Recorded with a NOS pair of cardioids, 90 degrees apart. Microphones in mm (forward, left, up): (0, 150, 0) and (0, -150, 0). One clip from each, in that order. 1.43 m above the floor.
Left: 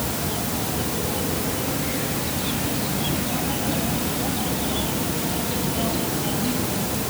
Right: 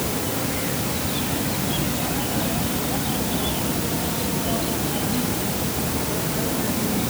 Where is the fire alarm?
No fire alarm in this recording.